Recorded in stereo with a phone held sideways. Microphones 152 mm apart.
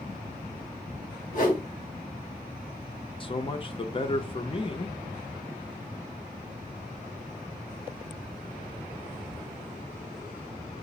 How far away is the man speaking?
About 0.6 m.